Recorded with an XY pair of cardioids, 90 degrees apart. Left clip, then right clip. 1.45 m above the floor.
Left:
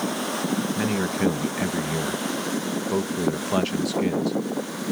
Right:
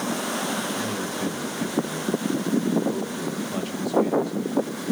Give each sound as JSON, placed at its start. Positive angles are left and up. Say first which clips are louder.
{"t": 0.8, "sound": "a man speaking", "louder": "left 3 dB", "azimuth_deg": 65, "distance_m": 1.4}